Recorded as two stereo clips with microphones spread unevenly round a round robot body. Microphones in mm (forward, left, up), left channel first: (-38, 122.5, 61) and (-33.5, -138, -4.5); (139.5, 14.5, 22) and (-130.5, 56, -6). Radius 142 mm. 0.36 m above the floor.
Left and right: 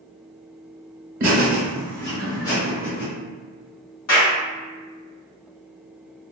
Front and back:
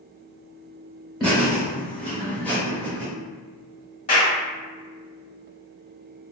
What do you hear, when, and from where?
1.2 s laughter: 110° right, 1.1 m; by 3.1 s 80° left, 1.8 m
4.1 s a clap: 55° left, 1.8 m